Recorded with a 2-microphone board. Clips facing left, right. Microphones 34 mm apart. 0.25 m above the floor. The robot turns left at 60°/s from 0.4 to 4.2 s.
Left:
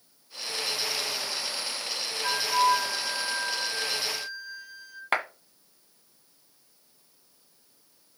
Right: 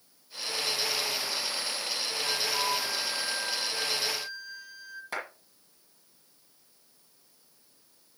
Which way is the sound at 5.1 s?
60° left (ahead or behind).